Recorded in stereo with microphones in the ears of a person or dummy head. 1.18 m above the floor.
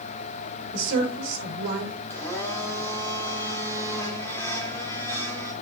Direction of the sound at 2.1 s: 15° left (ahead or behind).